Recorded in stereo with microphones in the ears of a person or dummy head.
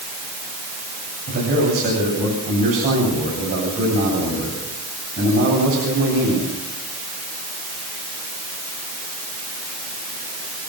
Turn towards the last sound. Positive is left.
turn(degrees=-45)  # may be behind; listen again after turning